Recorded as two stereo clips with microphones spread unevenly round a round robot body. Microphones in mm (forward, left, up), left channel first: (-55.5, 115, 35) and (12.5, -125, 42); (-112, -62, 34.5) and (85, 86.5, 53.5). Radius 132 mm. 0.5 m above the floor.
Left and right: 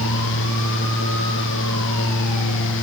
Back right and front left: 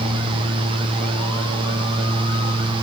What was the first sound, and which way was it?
Only background noise.